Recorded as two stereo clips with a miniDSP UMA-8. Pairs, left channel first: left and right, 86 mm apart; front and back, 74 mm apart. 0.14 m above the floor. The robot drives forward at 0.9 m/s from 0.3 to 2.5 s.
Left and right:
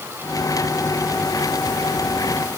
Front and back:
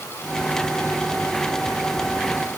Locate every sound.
Only background noise.